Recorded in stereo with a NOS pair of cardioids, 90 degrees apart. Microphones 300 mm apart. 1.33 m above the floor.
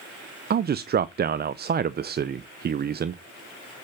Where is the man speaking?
35° right, 0.6 m.